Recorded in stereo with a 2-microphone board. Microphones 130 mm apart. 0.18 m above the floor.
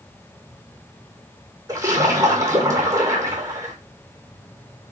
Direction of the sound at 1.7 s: 25° right (ahead or behind).